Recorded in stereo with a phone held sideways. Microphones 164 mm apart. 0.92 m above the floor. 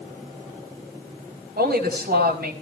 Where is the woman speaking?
80° right, 4.5 m.